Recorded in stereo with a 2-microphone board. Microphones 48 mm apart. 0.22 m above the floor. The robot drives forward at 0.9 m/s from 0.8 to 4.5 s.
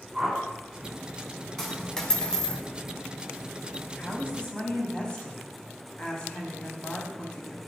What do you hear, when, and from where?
0.1 s a whoosh: 10° right (ahead or behind), 1.8 m
1.6 s a dropped coin: 10° left (ahead or behind), 1.1 m; by 2.6 s 20° left (ahead or behind), 0.6 m
4.0 s a woman speaking: 25° left (ahead or behind), 1.1 m